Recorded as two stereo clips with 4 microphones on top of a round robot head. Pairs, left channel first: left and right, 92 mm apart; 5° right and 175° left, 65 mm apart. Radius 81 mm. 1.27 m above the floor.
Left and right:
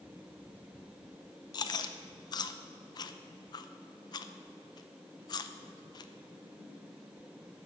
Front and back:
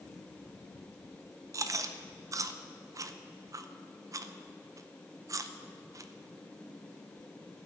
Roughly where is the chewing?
Behind left.